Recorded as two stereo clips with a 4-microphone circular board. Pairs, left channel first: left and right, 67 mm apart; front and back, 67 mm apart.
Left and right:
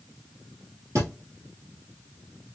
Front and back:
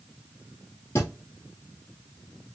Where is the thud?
40° right, 3 m.